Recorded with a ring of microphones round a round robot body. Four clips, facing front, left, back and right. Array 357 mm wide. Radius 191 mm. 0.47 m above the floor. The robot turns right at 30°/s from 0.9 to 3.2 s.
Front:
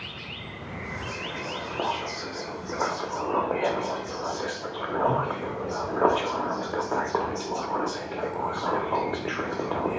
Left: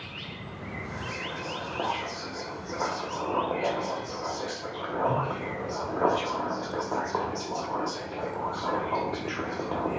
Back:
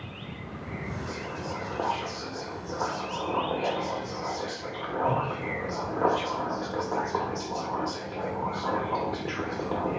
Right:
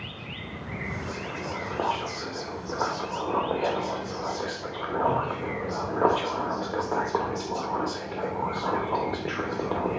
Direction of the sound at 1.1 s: 100° right.